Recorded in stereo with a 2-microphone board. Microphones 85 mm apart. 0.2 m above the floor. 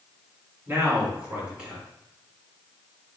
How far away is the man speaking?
About 1.8 m.